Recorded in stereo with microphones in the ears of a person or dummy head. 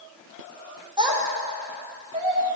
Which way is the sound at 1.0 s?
25° right (ahead or behind).